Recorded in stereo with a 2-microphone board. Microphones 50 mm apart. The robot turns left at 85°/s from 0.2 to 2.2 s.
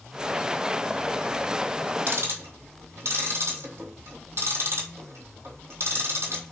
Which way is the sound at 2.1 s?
50° right (ahead or behind).